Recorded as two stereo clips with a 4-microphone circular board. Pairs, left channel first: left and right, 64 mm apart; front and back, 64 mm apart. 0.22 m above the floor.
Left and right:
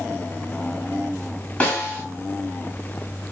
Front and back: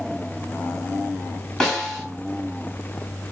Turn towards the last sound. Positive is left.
turn(degrees=65)